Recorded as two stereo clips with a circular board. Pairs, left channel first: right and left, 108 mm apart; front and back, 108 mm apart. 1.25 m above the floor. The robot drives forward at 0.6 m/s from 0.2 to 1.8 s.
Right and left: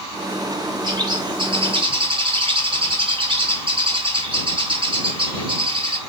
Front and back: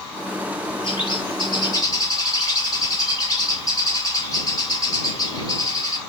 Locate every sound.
0.8 s a bird: 40° left, 2 m; by 6.0 s 55° left, 1.8 m